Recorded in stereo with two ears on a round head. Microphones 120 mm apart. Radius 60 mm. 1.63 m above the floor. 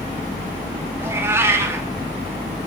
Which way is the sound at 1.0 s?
20° right (ahead or behind).